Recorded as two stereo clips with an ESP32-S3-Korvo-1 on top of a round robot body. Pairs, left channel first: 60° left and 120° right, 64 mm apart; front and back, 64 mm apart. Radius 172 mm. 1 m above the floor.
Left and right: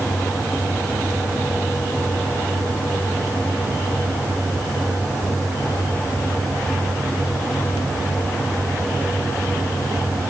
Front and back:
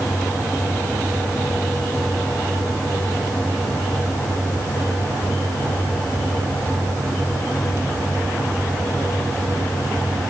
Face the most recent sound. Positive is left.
No sound to turn to.